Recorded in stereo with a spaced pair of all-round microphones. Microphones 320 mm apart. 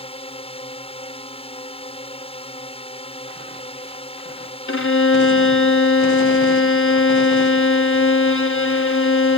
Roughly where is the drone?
Centre.